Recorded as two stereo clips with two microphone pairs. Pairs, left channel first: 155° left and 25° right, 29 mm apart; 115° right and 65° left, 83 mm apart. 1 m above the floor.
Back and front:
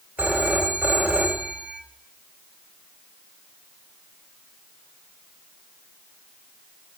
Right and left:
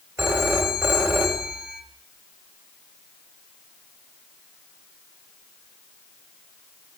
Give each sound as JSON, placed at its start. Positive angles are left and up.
{"t": 0.2, "sound": "a phone ringing", "azimuth_deg": 5, "distance_m": 2.5}